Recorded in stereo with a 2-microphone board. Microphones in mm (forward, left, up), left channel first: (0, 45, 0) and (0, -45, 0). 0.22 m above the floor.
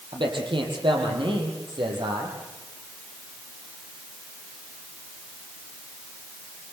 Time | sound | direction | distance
0.1 | a man speaking | 75° right (ahead or behind) | 7 m